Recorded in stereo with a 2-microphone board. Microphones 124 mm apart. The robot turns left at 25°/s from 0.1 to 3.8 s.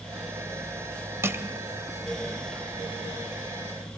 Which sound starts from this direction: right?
Crushing, at 1.2 s.